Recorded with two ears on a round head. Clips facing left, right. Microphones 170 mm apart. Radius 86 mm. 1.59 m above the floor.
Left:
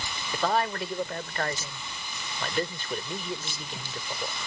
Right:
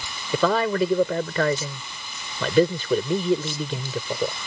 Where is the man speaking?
75° right (ahead or behind).